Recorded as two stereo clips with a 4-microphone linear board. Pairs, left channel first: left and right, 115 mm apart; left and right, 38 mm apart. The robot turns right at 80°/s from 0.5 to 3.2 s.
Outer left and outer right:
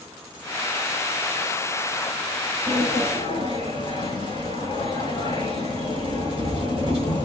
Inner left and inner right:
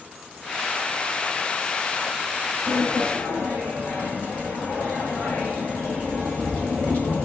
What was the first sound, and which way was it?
A sliding door, straight ahead.